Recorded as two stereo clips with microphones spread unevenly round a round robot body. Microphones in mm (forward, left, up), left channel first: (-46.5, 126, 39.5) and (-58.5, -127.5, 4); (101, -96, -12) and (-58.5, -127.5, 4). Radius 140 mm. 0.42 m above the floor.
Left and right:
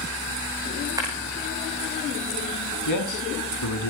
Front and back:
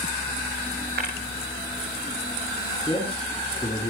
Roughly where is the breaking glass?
Behind.